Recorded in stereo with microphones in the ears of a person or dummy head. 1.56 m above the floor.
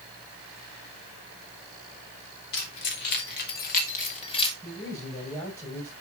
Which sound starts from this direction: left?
Keys jangling, at 2.5 s.